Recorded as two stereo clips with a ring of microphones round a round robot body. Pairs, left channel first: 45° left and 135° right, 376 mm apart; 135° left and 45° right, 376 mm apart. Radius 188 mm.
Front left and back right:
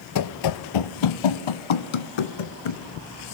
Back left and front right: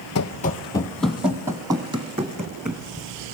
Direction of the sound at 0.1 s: 85° left.